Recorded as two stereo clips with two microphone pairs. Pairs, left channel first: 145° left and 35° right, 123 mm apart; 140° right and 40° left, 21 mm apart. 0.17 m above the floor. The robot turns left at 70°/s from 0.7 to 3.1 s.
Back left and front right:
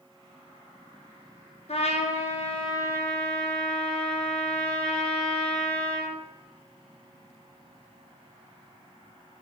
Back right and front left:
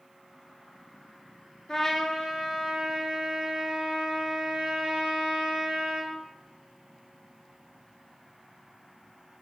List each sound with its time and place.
1.7 s a trumpet: 165° left, 0.9 m; by 6.2 s 65° left, 0.9 m